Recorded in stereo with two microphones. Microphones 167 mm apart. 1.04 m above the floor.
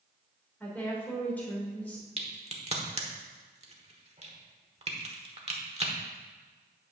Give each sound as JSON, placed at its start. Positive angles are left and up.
{"t": 0.6, "sound": "a woman speaking", "side_deg": 10, "distance_m": 3.0}
{"t": 2.2, "sound": "a crack", "side_deg": -40, "distance_m": 1.1}